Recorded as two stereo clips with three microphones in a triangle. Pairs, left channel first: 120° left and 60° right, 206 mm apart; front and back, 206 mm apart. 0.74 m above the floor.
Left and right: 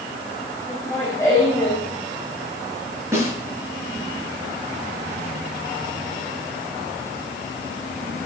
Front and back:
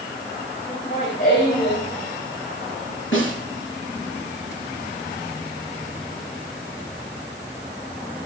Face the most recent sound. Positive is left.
turn(degrees=15)